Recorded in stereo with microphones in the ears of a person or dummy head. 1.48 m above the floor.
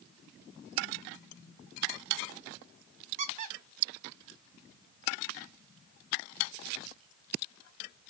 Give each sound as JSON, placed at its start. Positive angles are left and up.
{"t": 3.2, "sound": "a squeak", "side_deg": -45, "distance_m": 0.6}